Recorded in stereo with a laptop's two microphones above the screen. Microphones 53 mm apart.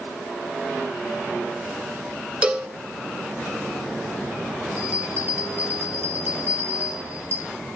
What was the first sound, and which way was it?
A cowbell, 25° right (ahead or behind).